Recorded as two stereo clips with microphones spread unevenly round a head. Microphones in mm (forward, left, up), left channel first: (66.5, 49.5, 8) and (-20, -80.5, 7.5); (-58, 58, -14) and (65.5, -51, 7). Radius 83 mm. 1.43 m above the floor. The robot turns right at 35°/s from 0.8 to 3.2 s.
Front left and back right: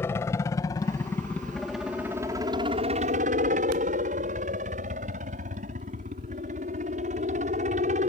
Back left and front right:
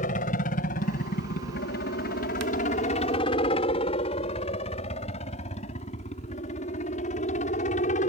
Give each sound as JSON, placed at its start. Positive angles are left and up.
{"t": 0.0, "sound": "a helicopter", "azimuth_deg": 130}